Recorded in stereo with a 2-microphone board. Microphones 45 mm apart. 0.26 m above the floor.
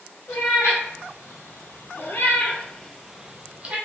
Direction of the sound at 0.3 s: 80° left.